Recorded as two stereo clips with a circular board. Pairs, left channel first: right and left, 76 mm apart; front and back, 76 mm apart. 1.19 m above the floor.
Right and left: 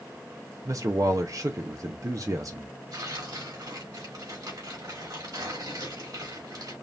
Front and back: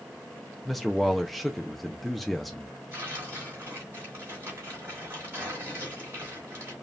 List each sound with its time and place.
0.7 s a man speaking: 90° left, 0.5 m
2.9 s tearing paper: 120° left, 3 m